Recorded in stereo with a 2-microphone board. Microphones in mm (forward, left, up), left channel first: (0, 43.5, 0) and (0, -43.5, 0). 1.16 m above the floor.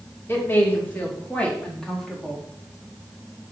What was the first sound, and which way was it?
A woman speaking, 25° left (ahead or behind).